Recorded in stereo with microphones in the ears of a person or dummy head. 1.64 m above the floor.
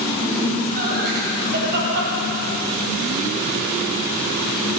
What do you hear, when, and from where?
0.2 s laughter: 50° right (ahead or behind), 10 m; by 4.8 s 75° right (ahead or behind), 8.5 m